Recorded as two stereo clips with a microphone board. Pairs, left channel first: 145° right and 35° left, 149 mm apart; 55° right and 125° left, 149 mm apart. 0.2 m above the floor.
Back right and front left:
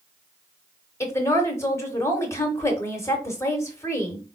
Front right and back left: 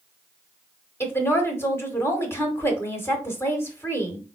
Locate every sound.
1.0 s a woman speaking: 100° right, 1.0 m